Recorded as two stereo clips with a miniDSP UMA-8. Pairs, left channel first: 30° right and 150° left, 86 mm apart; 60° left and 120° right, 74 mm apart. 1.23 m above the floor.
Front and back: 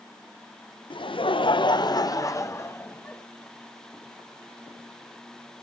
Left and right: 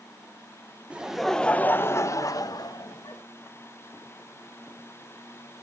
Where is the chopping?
I don't hear chopping.